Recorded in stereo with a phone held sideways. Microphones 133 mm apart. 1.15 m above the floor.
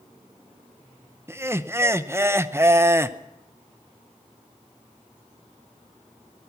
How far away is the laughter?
About 0.6 m.